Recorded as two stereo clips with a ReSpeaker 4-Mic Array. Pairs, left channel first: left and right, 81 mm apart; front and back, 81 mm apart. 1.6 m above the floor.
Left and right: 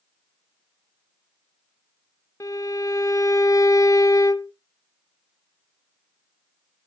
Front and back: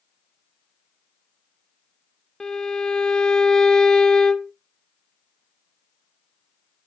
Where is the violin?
75° left, 0.6 m.